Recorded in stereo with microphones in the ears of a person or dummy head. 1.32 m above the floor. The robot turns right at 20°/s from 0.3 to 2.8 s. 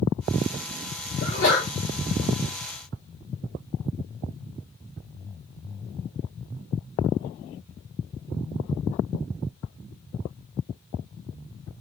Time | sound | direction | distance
1.2 | a sneeze | 55° left (ahead or behind) | 2.5 m